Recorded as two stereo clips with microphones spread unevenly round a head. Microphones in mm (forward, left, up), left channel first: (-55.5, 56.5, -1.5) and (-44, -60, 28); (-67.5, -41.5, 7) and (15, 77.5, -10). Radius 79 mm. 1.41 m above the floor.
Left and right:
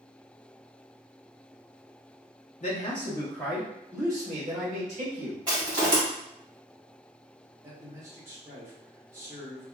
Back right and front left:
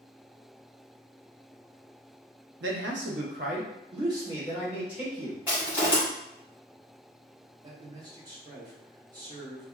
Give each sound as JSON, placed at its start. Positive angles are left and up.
{"t": 2.6, "sound": "a man speaking", "azimuth_deg": 55, "distance_m": 0.8}
{"t": 5.5, "sound": "crushing", "azimuth_deg": -25, "distance_m": 1.8}
{"t": 7.6, "sound": "a man speaking", "azimuth_deg": -15, "distance_m": 0.9}